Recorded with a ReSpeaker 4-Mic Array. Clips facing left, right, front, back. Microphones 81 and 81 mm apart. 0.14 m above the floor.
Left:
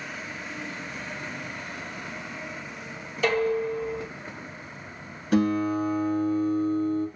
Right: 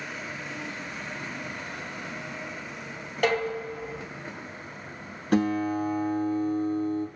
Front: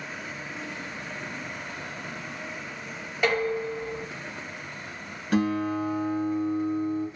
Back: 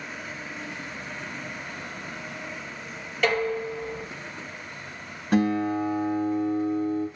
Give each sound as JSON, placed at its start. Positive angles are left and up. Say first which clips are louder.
{"t": 3.2, "sound": "dishes clattering", "louder": "left 3 dB, even", "azimuth_deg": -75, "distance_m": 1.8}
{"t": 5.3, "sound": "a guitar", "louder": "left 1 dB, back 2 dB", "azimuth_deg": -120, "distance_m": 2.5}